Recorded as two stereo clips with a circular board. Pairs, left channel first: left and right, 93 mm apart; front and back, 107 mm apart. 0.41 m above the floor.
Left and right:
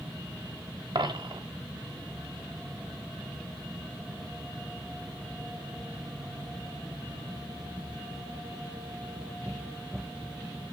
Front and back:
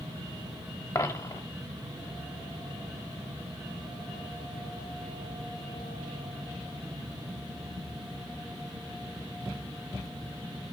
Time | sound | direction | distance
0.9 | a dropped coin | 60° right | 1.0 m